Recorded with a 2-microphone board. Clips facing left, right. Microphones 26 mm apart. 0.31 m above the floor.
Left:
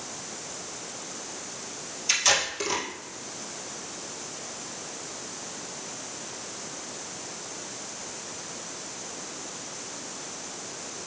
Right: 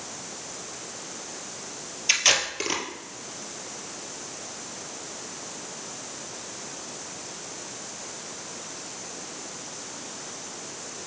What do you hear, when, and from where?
2.1 s tape being pulled: 25° right (ahead or behind), 1.8 m